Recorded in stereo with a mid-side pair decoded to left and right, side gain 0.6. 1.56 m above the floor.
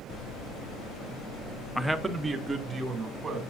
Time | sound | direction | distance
1.8 | a man speaking | straight ahead | 0.6 m